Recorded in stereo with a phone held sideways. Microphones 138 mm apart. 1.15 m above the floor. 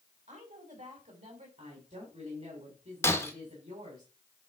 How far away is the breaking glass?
About 1.8 m.